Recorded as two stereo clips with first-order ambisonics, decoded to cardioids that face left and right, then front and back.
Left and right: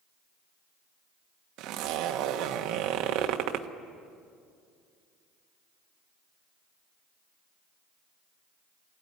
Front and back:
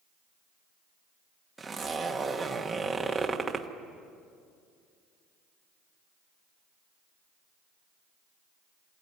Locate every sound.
1.6 s a zipper: 100° right, 1.4 m